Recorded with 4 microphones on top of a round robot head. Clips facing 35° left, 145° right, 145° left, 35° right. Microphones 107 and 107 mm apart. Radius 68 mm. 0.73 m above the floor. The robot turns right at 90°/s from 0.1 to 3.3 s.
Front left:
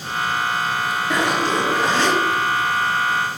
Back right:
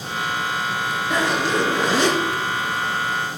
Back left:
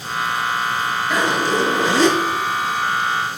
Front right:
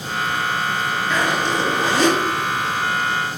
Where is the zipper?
60° left, 3.5 m; by 2.2 s 155° left, 3.5 m.